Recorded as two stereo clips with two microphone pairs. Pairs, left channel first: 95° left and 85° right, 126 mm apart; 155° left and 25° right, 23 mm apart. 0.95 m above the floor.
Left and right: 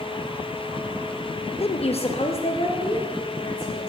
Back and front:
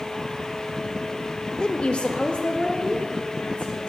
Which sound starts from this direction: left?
A woman speaking, at 1.6 s.